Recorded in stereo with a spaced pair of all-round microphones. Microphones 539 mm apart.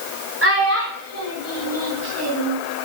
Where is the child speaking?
25° right (ahead or behind), 4 m; by 2.6 s 45° right (ahead or behind), 6 m.